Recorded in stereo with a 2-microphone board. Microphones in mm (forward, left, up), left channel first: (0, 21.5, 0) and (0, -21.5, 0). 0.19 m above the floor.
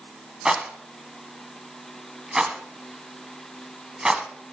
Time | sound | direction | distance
0.5 | a rattle | 20° right (ahead or behind) | 1.0 m